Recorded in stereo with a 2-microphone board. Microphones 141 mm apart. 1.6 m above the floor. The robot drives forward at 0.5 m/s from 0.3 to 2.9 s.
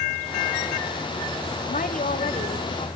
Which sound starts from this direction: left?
A woman speaking, at 1.7 s.